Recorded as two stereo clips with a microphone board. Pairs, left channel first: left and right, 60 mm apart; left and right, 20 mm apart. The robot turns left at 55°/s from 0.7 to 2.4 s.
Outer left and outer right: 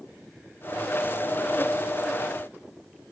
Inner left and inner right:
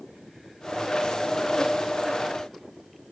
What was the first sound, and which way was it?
Only background noise.